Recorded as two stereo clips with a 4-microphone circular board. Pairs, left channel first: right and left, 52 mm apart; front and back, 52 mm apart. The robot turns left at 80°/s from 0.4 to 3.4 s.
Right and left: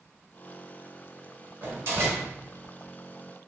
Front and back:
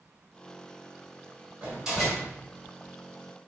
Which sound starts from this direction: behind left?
A door slam, at 1.6 s.